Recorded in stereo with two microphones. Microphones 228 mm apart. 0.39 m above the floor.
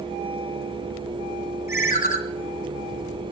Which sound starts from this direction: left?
A ringtone, at 1.7 s.